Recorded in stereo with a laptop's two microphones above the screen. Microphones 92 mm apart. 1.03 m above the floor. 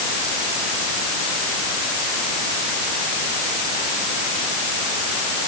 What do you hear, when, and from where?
Only background noise.